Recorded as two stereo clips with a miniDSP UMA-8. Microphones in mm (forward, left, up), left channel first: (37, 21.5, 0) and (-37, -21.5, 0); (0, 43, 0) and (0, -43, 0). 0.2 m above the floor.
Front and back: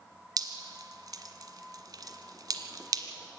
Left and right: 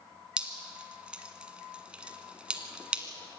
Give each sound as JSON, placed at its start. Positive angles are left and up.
{"t": 0.4, "sound": "dripping", "azimuth_deg": -165, "distance_m": 1.5}